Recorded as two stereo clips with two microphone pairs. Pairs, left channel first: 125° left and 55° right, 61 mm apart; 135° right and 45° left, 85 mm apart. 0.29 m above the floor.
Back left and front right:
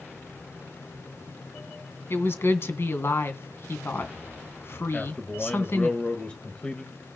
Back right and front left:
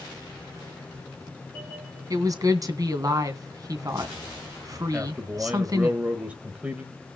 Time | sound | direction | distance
2.1 | a woman speaking | 85° left | 2.5 m
4.9 | a man speaking | 90° left | 1.6 m